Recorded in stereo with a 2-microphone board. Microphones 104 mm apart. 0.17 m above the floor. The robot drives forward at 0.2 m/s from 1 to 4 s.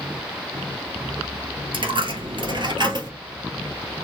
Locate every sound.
1.7 s a dropped coin: 55° right (ahead or behind), 1.1 m; by 3.1 s 45° right (ahead or behind), 1.3 m